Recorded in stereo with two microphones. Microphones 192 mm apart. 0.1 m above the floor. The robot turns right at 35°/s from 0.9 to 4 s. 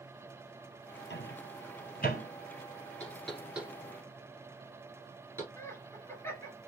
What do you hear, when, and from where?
1.1 s a microwave: 60° left (ahead or behind), 2.5 m; by 2.3 s 45° left (ahead or behind), 2.5 m
3.0 s knocking: 10° left (ahead or behind), 1.6 m; by 5.5 s 15° right (ahead or behind), 1.6 m
5.6 s laughter: 15° left (ahead or behind), 1.6 m